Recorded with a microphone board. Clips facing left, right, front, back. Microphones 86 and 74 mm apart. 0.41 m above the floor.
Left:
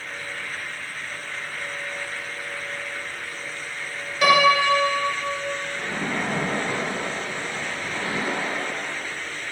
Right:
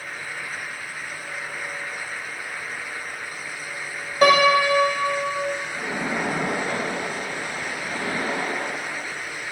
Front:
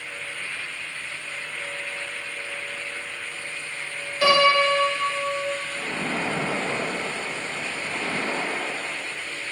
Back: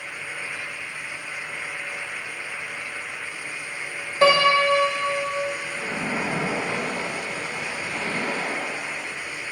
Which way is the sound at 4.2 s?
130° right.